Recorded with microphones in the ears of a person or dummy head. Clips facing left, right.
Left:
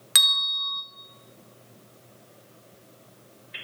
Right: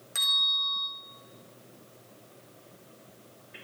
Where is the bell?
80° left, 2 m.